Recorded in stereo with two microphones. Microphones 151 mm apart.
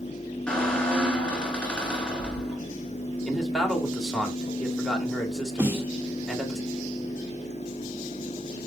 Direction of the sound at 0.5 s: 5° left (ahead or behind).